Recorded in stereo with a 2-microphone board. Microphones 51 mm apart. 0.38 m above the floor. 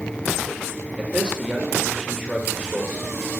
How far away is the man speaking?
About 1.3 m.